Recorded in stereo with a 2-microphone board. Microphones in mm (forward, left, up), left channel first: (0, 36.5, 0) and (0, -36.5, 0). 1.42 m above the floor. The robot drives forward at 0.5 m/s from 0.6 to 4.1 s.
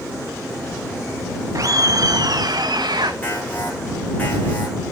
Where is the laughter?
55° right (ahead or behind), 1.6 m; by 3.1 s 80° right, 1.3 m.